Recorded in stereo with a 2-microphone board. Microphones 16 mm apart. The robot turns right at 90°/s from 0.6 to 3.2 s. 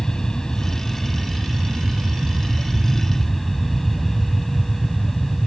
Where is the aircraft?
145° left; by 5.5 s 20° left.